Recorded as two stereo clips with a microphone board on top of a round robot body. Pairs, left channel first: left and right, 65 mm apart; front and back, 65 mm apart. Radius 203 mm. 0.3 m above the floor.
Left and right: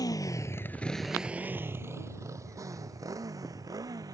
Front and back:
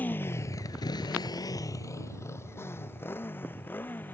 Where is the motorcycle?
65° left; by 4.2 s 60° right.